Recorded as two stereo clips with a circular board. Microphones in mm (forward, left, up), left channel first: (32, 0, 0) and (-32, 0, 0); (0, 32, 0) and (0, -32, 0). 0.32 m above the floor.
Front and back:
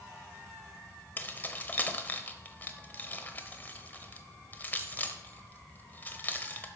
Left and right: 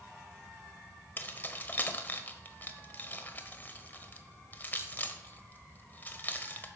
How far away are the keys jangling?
About 0.8 m.